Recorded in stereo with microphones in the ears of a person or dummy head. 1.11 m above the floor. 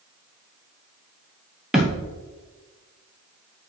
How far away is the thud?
About 1.2 m.